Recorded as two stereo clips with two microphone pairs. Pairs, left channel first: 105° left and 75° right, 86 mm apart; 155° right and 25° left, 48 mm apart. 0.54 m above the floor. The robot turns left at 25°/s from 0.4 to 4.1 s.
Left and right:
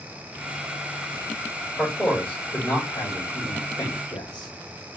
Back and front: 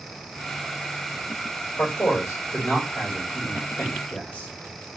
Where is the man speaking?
170° right, 2.5 m; by 4.5 s 130° left, 2.5 m.